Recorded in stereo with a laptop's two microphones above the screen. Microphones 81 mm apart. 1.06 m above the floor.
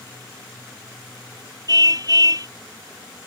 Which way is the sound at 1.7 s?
50° right (ahead or behind).